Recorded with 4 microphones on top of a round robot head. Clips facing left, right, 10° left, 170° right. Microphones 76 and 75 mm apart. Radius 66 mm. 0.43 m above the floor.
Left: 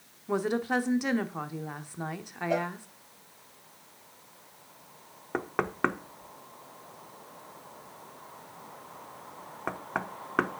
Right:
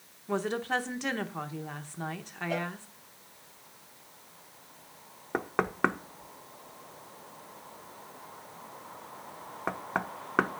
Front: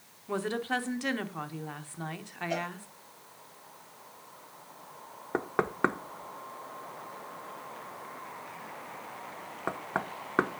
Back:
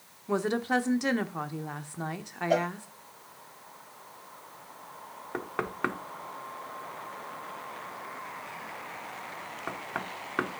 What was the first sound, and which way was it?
A woman speaking, 150° left.